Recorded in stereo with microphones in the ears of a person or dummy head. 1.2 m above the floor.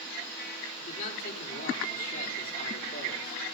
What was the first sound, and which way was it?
A man speaking, 45° left (ahead or behind).